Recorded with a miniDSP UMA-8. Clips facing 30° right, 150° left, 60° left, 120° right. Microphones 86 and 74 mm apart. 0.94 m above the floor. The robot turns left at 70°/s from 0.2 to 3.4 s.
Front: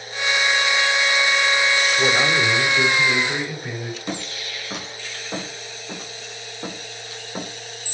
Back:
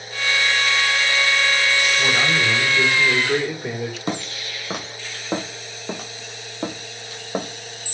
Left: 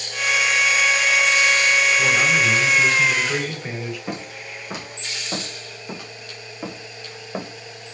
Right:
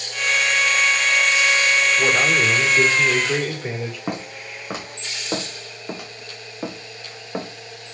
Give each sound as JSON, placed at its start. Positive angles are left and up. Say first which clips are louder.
{"t": 2.0, "sound": "a man speaking", "louder": "front 1 dB, even", "azimuth_deg": -85, "distance_m": 3.0}
{"t": 4.1, "sound": "footsteps", "louder": "back 2 dB, right 2 dB", "azimuth_deg": -165, "distance_m": 3.0}